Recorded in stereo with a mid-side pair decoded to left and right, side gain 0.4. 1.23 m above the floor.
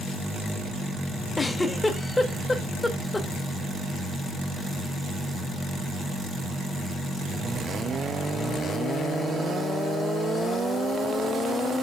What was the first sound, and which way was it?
A giggle, 25° left.